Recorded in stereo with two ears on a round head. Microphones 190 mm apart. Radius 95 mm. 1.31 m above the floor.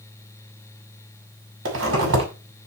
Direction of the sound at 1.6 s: 65° right (ahead or behind).